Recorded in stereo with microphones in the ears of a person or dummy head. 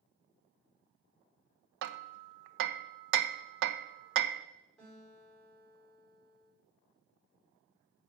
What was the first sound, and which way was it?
Hammering, 65° right (ahead or behind).